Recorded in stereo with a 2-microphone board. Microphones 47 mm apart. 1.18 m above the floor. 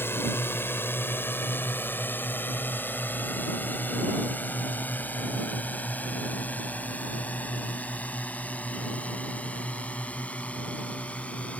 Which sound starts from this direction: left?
A drone, at 0.0 s.